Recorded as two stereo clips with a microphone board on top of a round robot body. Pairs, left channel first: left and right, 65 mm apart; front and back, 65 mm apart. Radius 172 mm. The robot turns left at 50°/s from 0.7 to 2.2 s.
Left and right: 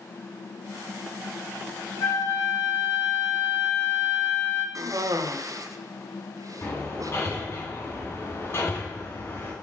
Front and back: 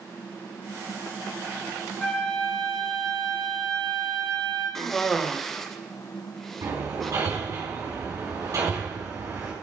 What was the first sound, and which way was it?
A flute, 85° left.